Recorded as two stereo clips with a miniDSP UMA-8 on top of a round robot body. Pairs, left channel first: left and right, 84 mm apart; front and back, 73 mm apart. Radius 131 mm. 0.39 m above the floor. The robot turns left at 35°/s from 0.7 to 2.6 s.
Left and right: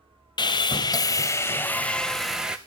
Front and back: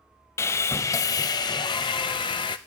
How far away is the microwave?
No microwave in this recording.